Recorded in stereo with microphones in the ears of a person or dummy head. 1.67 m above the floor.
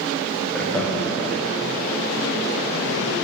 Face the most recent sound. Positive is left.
turn(degrees=10)  # may be behind; listen again after turning